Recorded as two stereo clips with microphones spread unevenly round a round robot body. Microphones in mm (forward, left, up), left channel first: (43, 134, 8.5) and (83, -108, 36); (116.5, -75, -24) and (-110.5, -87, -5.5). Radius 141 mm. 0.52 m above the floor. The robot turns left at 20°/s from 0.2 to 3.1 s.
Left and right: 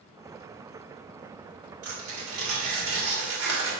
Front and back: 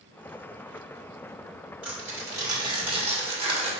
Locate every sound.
1.8 s tearing paper: 90° right, 1.9 m; by 3.7 s 115° right, 1.9 m